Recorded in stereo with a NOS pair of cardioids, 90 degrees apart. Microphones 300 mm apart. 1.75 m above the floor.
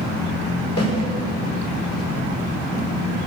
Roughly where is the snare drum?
Ahead left.